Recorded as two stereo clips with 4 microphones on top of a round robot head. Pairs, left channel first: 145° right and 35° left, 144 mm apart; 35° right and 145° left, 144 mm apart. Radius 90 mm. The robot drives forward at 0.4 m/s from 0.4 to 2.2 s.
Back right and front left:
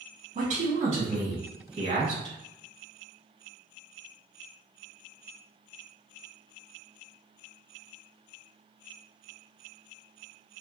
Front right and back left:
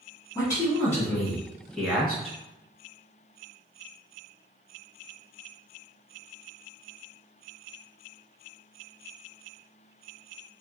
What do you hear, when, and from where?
0.3 s a man speaking: 35° left, 1.4 m; by 2.3 s 75° left, 1.1 m